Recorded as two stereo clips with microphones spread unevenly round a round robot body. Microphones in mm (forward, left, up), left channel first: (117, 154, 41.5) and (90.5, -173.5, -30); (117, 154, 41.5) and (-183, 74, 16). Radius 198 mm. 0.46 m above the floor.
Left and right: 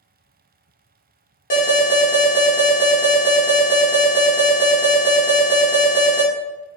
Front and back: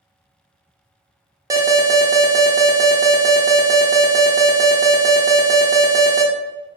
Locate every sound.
1.5 s an alarm: 145° left, 0.6 m